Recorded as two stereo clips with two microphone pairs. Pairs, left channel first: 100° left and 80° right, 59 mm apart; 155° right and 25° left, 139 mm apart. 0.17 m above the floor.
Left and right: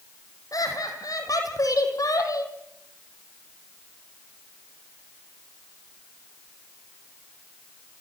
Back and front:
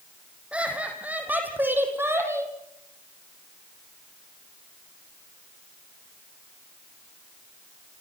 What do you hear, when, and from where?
0.5 s laughter: 105° left, 6.5 m; by 2.5 s 95° left, 5 m